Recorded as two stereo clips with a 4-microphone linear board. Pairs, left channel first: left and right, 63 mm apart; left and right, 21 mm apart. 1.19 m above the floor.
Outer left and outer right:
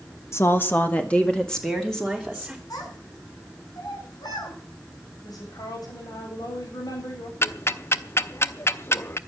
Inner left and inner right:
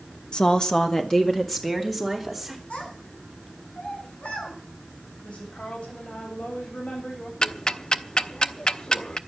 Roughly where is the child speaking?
Left.